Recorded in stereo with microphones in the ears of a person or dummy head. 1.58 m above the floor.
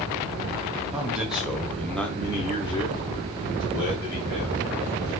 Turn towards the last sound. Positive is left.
turn(degrees=20)  # may be behind; listen again after turning